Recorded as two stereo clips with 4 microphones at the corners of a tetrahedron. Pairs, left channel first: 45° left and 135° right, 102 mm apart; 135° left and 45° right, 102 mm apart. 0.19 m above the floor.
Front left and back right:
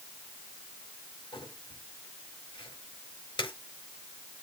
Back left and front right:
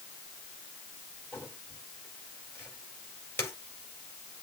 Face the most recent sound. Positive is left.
turn(degrees=75)